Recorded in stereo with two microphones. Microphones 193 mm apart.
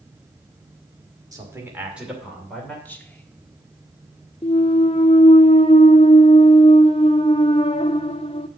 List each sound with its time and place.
1.3 s a man speaking: 20° right (ahead or behind), 2 m; by 2.8 s 5° left (ahead or behind), 2.5 m
2.9 s whispering: 10° left (ahead or behind), 1.5 m
4.4 s a clunk: 30° left (ahead or behind), 0.5 m